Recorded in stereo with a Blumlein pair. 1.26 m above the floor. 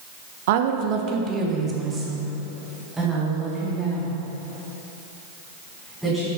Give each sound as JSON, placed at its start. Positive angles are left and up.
{"t": 0.5, "sound": "a woman speaking", "azimuth_deg": -55, "distance_m": 0.6}